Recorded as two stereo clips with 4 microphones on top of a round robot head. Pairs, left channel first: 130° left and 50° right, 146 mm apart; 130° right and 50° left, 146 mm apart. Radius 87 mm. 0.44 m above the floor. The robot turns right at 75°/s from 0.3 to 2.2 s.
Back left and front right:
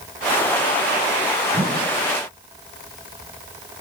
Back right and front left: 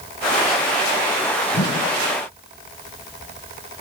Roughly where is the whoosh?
Behind right.